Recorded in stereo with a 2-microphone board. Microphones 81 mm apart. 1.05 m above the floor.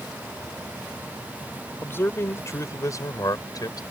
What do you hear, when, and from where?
1.8 s a man speaking: 30° left (ahead or behind); by 3.8 s 55° left (ahead or behind)